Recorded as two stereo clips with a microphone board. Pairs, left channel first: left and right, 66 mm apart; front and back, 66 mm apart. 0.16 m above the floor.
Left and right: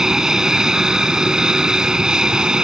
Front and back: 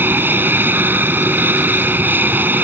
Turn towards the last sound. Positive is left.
turn(degrees=-160)